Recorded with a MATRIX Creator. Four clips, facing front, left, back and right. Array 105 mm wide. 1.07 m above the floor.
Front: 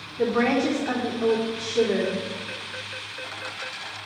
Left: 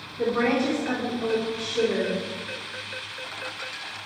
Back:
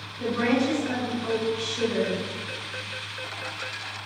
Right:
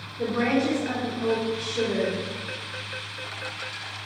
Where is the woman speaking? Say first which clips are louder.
Left 1 dB, front 2 dB; 15° left, 3.5 m.